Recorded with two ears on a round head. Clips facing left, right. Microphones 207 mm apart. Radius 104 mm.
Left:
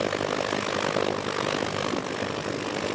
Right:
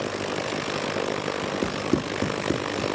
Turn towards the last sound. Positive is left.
turn(degrees=-40)  # may be behind; listen again after turning